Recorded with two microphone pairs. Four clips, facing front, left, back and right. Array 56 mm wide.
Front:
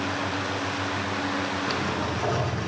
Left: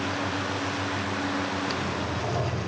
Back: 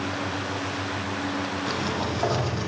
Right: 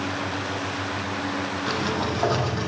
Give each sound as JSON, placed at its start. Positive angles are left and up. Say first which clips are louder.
{"t": 1.7, "sound": "a sliding door", "louder": "right 4 dB, even", "azimuth_deg": -125, "distance_m": 6.5}